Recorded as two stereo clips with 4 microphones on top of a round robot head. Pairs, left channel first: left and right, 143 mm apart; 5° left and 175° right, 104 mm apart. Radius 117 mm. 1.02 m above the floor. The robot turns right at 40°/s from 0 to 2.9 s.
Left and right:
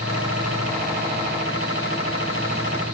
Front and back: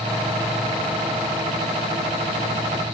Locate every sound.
Only background noise.